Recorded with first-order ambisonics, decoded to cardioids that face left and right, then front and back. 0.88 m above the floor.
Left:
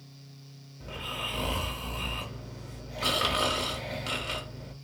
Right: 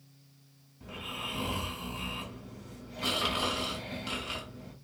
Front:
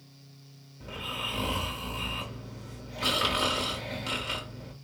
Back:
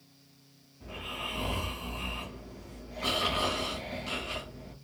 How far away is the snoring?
About 1.5 m.